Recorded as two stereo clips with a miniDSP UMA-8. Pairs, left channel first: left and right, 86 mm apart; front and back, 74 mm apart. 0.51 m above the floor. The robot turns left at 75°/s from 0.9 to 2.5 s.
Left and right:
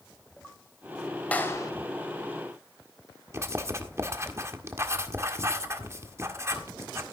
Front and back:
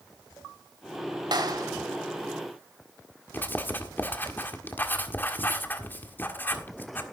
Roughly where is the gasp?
I don't hear a gasp.